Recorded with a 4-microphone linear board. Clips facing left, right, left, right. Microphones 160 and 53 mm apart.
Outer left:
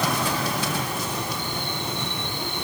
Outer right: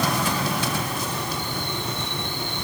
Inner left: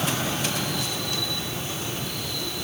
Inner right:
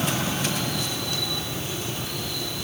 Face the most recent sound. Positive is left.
No sound to turn to.